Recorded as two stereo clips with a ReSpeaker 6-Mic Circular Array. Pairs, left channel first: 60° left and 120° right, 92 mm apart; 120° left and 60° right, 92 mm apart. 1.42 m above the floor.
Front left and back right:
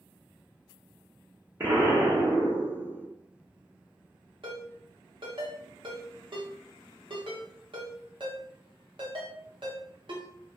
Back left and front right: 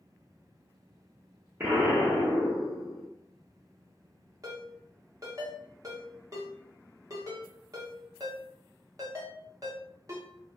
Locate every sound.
1.6 s an explosion: 100° right, 1.2 m
4.4 s a ringtone: 110° right, 1.0 m